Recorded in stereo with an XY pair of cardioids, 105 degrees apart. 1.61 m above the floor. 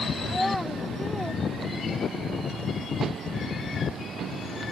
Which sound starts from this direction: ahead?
A child speaking, at 0.3 s.